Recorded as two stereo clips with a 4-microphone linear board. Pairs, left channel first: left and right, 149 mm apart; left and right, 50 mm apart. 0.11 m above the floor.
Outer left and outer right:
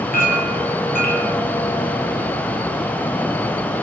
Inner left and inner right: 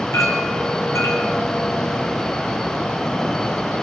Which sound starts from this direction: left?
A clink, at 0.1 s.